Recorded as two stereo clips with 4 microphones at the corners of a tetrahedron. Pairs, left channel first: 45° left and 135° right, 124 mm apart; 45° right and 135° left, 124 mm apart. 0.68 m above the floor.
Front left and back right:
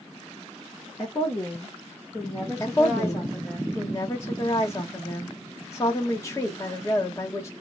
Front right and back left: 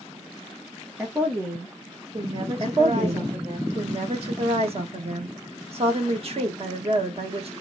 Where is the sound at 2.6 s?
110° left, 1.0 m.